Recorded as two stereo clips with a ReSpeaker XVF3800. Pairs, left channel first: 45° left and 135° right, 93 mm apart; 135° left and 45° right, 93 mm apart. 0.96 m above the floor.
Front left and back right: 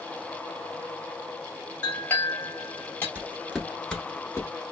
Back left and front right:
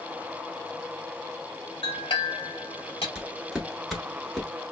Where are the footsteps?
125° right, 0.9 m; by 4.5 s 50° left, 1.0 m.